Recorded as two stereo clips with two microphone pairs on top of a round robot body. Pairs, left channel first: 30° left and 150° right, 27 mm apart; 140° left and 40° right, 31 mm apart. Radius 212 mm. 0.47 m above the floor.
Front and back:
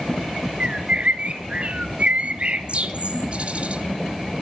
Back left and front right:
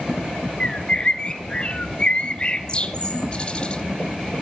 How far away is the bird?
About 0.9 m.